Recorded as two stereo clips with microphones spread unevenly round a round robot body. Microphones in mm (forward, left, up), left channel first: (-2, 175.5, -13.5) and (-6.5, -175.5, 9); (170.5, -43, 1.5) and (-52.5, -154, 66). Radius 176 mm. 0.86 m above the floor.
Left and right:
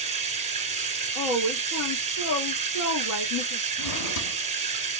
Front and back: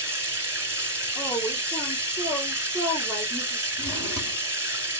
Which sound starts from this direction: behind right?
Running water, at 0.0 s.